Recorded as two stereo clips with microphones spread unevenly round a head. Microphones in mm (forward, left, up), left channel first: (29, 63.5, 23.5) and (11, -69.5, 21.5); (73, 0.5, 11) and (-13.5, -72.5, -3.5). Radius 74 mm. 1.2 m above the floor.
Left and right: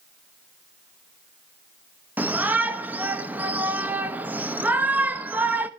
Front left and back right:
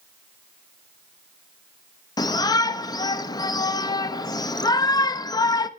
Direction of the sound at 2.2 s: 20° right.